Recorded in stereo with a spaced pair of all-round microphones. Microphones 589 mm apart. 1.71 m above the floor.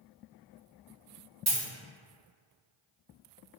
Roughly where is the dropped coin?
Right.